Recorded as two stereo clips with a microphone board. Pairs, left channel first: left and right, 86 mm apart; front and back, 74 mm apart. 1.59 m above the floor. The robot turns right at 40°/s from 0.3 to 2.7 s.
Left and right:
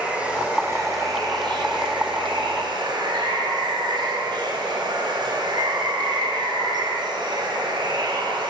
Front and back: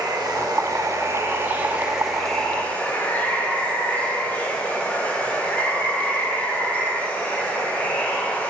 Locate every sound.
0.0 s running water: 165° right, 0.8 m; by 8.5 s 70° right, 0.8 m